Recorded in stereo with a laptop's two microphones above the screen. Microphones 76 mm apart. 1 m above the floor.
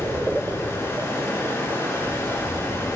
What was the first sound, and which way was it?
Running water, 30° left (ahead or behind).